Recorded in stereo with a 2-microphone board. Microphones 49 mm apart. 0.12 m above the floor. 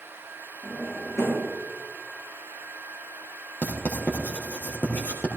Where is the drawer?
75° left (ahead or behind), 7 m.